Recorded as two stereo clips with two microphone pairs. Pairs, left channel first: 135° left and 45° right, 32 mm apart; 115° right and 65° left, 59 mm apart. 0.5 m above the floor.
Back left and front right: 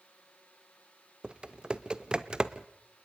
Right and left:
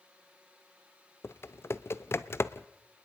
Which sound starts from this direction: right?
Typing on a keyboard, at 1.2 s.